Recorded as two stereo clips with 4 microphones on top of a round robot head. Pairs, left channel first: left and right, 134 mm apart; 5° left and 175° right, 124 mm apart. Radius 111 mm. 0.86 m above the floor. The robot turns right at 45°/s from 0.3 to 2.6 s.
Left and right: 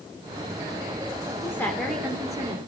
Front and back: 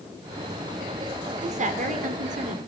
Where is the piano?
I don't hear a piano.